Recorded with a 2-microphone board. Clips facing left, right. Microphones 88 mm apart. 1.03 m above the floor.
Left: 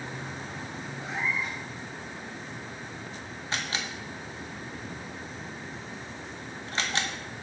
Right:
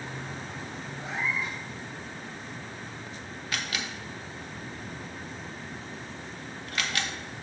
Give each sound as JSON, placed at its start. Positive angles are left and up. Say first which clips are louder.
{"t": 1.0, "sound": "a cat meowing", "louder": "even", "side_deg": 0, "distance_m": 3.0}
{"t": 3.5, "sound": "a camera shutter", "louder": "left 1 dB", "side_deg": 30, "distance_m": 0.9}